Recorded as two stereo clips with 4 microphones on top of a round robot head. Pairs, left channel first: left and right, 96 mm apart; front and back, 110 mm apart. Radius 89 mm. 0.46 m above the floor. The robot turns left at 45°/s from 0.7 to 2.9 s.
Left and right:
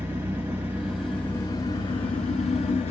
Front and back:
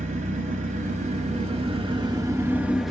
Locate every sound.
0.0 s an engine running: 165° right, 1.1 m; by 2.9 s 95° left, 1.1 m